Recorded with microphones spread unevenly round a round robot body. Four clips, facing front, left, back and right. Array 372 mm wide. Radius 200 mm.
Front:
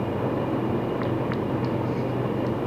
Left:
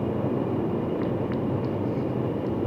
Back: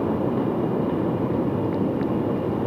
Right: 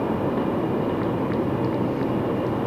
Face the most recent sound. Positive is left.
No sound to turn to.